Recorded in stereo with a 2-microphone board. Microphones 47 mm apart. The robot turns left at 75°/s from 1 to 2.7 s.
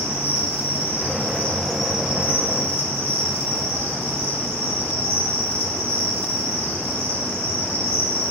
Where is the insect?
60° left, 1.5 m; by 8.3 s 65° right, 1.5 m.